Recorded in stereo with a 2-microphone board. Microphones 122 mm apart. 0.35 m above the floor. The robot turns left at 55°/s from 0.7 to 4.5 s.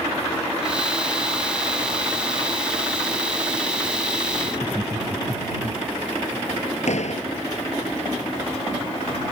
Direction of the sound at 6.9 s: 70° left (ahead or behind).